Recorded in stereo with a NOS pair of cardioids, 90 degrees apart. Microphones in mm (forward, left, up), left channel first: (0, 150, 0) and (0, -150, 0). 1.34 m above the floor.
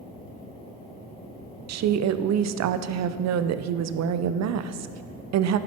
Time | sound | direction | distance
1.7 | a woman speaking | 60° right | 0.6 m